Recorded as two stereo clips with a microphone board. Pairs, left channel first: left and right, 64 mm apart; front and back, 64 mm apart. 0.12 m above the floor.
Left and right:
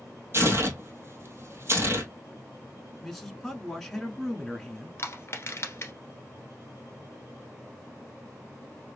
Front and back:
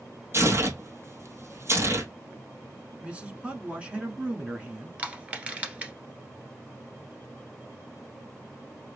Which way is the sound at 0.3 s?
135° right.